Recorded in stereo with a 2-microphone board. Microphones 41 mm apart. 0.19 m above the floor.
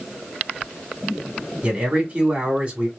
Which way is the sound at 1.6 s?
30° right (ahead or behind).